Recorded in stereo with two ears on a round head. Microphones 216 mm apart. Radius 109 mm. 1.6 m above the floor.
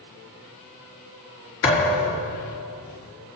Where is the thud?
55° left (ahead or behind), 4.5 m.